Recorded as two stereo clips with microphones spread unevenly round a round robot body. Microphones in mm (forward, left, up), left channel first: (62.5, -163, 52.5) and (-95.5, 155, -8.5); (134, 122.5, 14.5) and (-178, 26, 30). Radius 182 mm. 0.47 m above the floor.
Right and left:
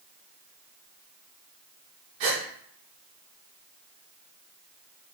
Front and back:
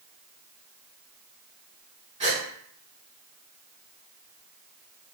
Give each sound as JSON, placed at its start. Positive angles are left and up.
{"t": 2.2, "sound": "a gasp", "azimuth_deg": 125, "distance_m": 1.0}